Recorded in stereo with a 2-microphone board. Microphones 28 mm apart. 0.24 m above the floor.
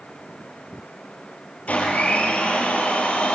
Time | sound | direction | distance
1.7 | a blender | 55° left (ahead or behind) | 5.5 m